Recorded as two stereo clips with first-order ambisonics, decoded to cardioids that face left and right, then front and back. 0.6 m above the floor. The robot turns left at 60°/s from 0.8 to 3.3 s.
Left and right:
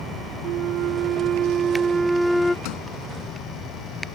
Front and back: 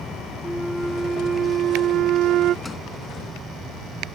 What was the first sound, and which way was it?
A flute, 90° right.